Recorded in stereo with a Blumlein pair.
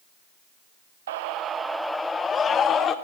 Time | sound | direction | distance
1.1 | a scream | 60° right | 0.6 m